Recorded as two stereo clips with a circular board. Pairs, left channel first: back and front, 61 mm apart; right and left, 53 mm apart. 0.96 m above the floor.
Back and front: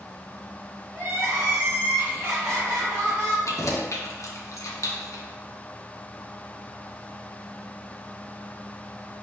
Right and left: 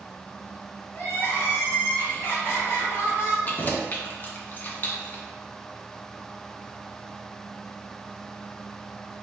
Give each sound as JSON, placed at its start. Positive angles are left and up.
{"t": 0.9, "sound": "crying", "azimuth_deg": -50, "distance_m": 2.0}
{"t": 3.5, "sound": "keys jangling", "azimuth_deg": -145, "distance_m": 0.7}